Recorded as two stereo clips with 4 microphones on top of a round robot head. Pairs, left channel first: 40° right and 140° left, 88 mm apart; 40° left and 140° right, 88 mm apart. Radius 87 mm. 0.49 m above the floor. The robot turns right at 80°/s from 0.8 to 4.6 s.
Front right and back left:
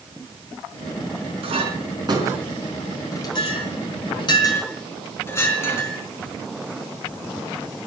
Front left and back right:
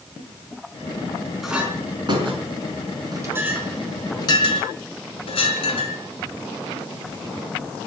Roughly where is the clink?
Behind left.